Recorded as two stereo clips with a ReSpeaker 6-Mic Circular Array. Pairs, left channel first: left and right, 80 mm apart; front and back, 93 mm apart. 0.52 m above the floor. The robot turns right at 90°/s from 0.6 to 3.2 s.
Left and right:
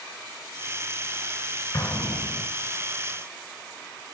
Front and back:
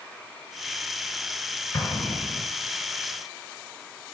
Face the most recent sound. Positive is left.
turn(degrees=175)